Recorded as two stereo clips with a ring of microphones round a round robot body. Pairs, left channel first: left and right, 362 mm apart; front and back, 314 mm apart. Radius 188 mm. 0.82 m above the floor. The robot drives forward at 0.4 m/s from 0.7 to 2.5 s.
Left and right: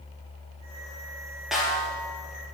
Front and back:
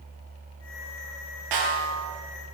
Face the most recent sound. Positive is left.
turn(degrees=180)